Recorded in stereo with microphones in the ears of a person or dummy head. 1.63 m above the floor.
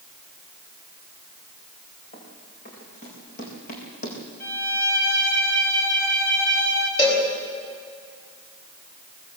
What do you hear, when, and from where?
2.1 s running footsteps: 40° left (ahead or behind), 7.5 m; by 4.2 s 50° left (ahead or behind), 5.5 m
4.4 s a violin: 55° left (ahead or behind), 4.5 m
7.0 s a cowbell: 30° left (ahead or behind), 5.5 m